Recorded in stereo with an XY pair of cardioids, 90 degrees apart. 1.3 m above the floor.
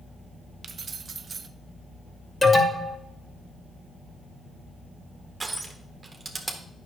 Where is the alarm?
25° left, 2.5 m.